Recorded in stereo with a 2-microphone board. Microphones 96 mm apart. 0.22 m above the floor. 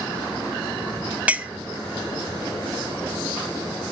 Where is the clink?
15° right (ahead or behind), 0.5 m.